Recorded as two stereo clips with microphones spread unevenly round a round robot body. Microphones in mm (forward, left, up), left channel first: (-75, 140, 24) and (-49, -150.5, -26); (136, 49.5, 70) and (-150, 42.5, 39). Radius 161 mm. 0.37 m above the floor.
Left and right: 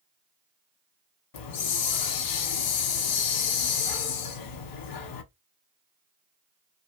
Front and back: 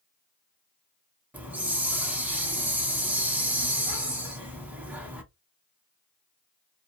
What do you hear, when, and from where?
1.3 s a hiss: 95° left, 0.8 m